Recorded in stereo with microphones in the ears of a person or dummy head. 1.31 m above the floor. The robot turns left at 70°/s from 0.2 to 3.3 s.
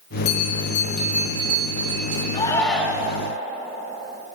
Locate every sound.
0.2 s a bell: 55° left, 3 m; by 2.2 s 85° right, 3 m
2.3 s a shout: 30° left, 1.6 m; by 3.2 s 30° right, 1.6 m